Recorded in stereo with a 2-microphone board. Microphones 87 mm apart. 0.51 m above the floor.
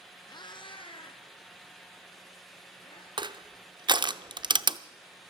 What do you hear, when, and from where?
0.3 s a cat meowing: 55° left (ahead or behind), 1.0 m; by 3.1 s 85° left, 4.5 m
3.2 s crushing: 60° right (ahead or behind), 0.5 m